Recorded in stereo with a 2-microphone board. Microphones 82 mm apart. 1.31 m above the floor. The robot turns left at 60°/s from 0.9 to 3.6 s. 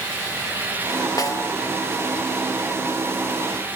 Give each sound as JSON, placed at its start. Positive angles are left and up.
{"t": 1.2, "sound": "a snare drum", "side_deg": 50}